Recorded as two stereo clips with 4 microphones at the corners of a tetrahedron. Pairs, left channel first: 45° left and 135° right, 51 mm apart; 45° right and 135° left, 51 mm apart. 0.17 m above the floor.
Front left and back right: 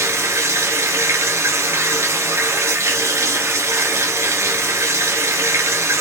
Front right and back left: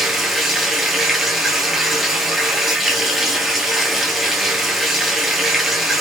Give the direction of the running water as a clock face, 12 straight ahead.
5 o'clock.